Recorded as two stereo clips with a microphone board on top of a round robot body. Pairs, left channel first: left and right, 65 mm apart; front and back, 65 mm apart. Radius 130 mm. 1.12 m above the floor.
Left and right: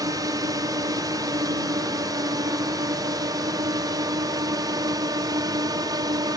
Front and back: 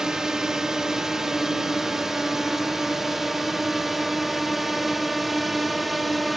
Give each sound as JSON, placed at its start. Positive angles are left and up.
{"t": 0.0, "sound": "a drone", "azimuth_deg": -100}